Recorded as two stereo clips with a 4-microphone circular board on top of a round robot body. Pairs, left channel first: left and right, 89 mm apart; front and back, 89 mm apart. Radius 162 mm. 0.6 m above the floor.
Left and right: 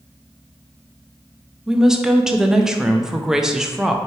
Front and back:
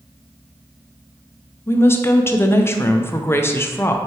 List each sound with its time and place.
1.7 s a woman speaking: 10° right, 0.6 m